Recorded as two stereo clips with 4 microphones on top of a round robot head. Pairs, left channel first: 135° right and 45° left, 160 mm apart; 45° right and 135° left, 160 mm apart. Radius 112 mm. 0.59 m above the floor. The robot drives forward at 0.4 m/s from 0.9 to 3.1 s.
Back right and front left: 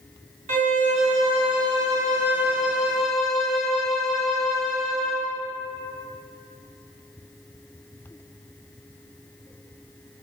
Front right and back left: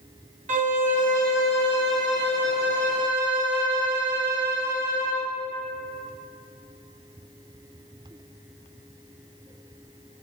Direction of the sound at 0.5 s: 90° left.